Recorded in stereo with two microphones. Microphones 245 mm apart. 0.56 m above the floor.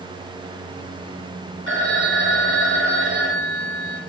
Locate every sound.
1.7 s a phone ringing: 55° right (ahead or behind), 1.4 m